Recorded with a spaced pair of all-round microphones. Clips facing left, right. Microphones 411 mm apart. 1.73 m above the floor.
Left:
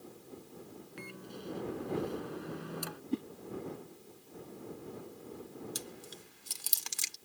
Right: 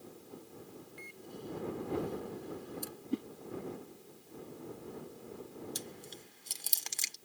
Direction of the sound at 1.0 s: 80° left.